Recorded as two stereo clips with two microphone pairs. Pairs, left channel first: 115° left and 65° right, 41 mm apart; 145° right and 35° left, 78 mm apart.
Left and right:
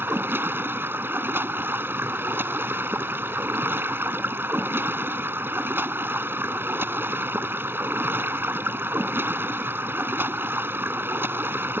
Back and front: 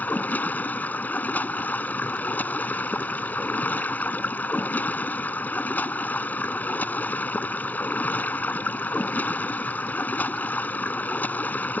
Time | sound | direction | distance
0.0 | running water | 80° right | ?